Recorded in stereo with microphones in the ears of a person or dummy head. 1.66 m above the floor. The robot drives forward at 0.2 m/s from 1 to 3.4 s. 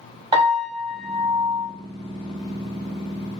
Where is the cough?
I don't hear a cough.